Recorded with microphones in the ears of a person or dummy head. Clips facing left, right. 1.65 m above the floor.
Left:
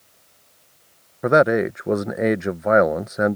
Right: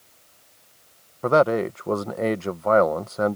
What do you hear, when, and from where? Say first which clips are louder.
1.2 s a man speaking: left 2 dB; 20° left (ahead or behind)